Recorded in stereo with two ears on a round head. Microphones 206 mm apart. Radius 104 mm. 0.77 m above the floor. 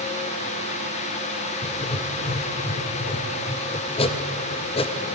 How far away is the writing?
About 0.5 m.